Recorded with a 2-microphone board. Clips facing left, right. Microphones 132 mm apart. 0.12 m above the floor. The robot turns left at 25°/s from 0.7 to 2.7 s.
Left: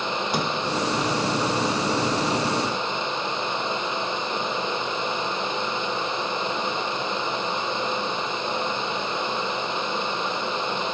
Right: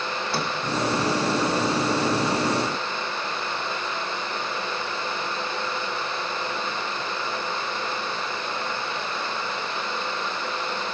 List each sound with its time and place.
0.3 s a sliding door: 15° left (ahead or behind), 2.0 m